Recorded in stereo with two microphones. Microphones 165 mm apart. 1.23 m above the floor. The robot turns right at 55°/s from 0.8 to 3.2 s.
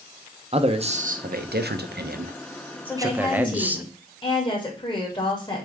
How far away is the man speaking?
About 0.7 m.